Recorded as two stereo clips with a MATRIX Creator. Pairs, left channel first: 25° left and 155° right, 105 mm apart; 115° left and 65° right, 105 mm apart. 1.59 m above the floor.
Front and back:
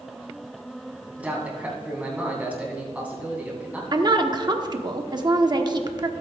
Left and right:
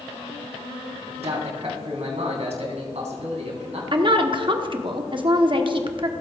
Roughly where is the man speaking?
Right.